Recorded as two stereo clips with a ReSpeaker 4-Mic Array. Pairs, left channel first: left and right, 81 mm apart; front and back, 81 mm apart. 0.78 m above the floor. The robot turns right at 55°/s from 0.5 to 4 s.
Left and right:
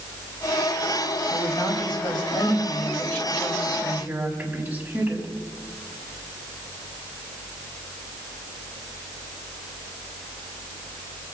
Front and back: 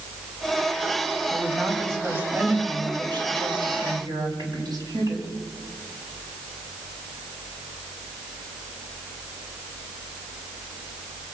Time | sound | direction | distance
1.3 | a woman speaking | 55° left | 4.5 m